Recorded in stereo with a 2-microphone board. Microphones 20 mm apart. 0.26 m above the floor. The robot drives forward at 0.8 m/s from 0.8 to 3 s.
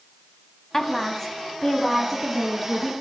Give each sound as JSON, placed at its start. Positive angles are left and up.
{"t": 0.7, "sound": "a woman speaking", "side_deg": 20, "distance_m": 2.0}